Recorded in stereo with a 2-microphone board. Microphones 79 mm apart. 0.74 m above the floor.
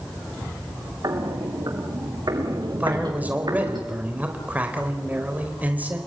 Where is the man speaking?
20° right (ahead or behind), 3.5 m.